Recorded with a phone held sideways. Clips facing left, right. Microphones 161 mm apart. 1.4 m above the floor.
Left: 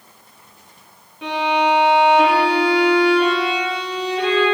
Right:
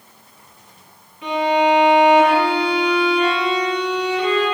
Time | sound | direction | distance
1.2 | a violin | 85° left | 2.5 m